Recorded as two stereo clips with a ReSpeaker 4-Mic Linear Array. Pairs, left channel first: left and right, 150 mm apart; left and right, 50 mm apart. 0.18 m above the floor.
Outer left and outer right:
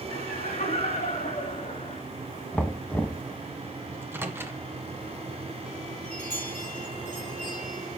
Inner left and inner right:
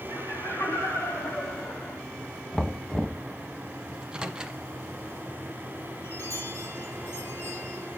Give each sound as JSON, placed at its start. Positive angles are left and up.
{"t": 0.1, "sound": "laughter", "side_deg": 65, "distance_m": 7.5}
{"t": 2.5, "sound": "knocking", "side_deg": 10, "distance_m": 0.8}
{"t": 3.9, "sound": "a microwave", "side_deg": -15, "distance_m": 1.4}
{"t": 6.0, "sound": "a chime", "side_deg": 60, "distance_m": 6.0}